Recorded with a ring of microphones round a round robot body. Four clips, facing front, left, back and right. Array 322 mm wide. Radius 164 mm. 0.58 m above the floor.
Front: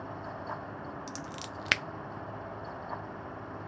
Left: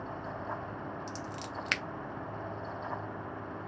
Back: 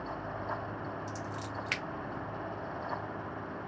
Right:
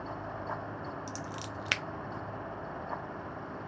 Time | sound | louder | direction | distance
1.1 | scissors | even, back 2 dB | 5° right | 0.6 m